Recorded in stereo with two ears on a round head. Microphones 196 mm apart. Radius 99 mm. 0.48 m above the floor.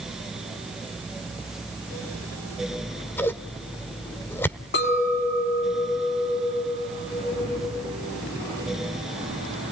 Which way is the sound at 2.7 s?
10° left (ahead or behind).